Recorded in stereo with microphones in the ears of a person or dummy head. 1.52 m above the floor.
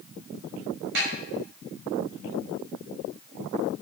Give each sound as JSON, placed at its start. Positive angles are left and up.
{"t": 0.9, "sound": "a snare drum", "side_deg": -65, "distance_m": 6.0}